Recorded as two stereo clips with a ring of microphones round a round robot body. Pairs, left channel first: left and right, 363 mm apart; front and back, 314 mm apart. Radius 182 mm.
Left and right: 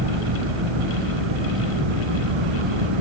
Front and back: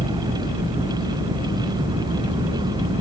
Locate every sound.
0.0 s an engine running: 100° right